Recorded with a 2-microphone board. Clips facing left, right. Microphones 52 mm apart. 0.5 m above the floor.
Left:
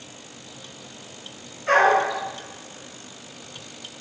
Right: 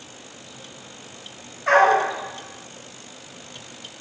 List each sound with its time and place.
1.7 s a dog barking: 75° right (ahead or behind), 1.1 m